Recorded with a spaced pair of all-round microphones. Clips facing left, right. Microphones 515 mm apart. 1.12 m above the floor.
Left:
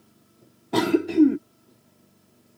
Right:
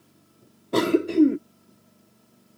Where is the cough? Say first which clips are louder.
Even; 10° left (ahead or behind).